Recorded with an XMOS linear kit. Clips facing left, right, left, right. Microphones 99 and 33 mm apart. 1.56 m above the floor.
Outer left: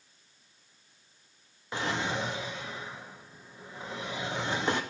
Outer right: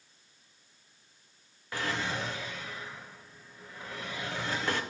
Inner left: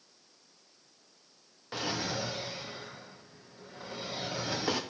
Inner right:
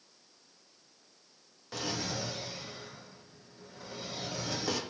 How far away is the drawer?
About 0.7 m.